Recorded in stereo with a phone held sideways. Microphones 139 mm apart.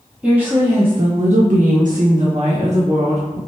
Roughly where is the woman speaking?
Centre.